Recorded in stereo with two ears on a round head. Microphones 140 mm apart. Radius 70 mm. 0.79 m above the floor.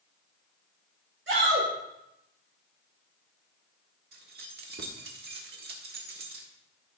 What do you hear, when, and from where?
1.3 s a shout: 80° right, 2.5 m
4.1 s keys jangling: 70° right (ahead or behind), 1.5 m